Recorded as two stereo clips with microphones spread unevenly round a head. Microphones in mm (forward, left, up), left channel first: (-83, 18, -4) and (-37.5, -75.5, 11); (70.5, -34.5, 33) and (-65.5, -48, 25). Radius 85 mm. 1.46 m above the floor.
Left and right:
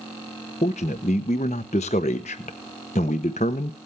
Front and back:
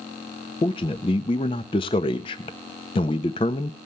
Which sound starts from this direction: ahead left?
A man speaking, at 0.6 s.